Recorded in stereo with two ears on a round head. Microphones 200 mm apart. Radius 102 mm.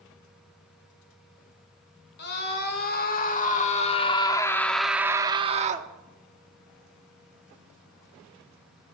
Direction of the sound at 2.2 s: 50° left (ahead or behind).